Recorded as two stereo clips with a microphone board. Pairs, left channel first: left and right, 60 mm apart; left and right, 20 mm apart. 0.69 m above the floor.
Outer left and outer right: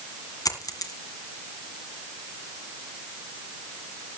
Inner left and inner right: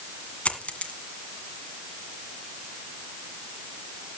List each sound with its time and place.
0.5 s a dropped coin: 80° left, 1.9 m